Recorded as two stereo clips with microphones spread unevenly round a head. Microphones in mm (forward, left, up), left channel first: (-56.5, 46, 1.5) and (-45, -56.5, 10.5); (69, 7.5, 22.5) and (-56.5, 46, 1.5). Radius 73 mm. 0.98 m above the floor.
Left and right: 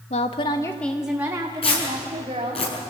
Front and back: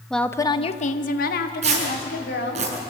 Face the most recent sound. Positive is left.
turn(degrees=125)